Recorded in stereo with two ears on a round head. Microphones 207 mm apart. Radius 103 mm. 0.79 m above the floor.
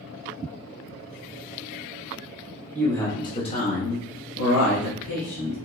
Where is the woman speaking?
5° left (ahead or behind), 1.1 m; by 5.5 s 55° left (ahead or behind), 1.4 m.